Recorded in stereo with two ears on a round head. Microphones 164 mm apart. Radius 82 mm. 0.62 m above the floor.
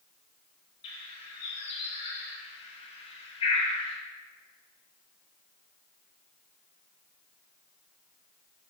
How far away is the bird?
About 1.1 m.